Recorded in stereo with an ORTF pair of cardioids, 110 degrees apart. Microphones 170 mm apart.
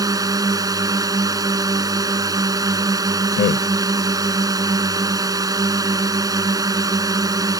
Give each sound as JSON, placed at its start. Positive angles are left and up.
{"t": 0.0, "sound": "a drone", "azimuth_deg": -20}
{"t": 3.4, "sound": "a man speaking", "azimuth_deg": 55}